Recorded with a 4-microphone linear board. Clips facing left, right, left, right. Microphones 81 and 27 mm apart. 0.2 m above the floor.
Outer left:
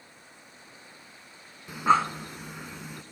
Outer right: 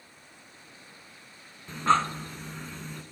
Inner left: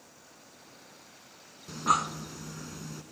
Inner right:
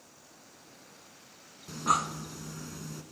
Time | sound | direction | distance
1.7 | breathing | 10° left (ahead or behind) | 0.5 m